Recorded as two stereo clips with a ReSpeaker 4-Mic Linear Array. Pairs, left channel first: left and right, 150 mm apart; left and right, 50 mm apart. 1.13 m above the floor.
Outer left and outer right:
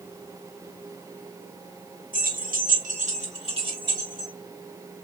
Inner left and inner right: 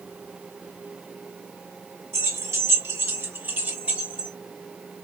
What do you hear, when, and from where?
2.1 s keys jangling: 75° right (ahead or behind), 1.1 m; by 4.3 s 25° right (ahead or behind), 1.7 m